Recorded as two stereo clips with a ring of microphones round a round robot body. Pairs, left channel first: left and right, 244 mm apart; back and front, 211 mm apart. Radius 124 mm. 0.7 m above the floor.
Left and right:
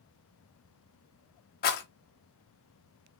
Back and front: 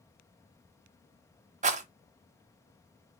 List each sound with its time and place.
1.6 s a rattle: 45° left, 0.6 m